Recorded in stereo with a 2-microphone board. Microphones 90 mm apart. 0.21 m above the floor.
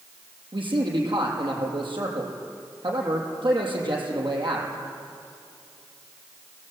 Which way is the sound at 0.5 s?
60° right (ahead or behind).